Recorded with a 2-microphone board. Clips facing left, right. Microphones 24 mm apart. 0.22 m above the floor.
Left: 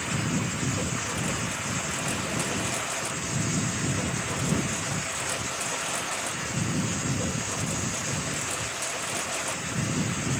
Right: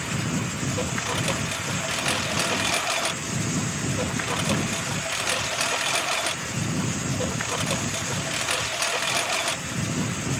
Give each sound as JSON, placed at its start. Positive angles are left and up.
{"t": 0.0, "sound": "a lawn mower", "side_deg": -55}